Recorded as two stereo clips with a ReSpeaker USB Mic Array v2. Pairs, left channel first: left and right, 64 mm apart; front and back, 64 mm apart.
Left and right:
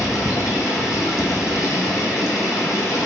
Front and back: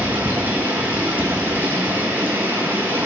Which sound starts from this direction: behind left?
Running water, at 0.0 s.